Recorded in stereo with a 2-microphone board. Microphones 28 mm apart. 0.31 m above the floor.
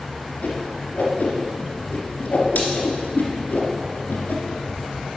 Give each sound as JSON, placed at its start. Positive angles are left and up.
{"t": 0.4, "sound": "a whoosh", "side_deg": 65, "distance_m": 2.0}